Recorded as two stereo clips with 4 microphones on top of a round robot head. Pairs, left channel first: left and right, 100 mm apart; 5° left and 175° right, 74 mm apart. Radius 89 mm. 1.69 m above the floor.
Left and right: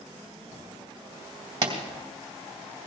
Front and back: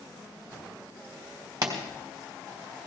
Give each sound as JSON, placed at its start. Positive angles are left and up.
{"t": 1.6, "sound": "a pop", "azimuth_deg": -140, "distance_m": 1.9}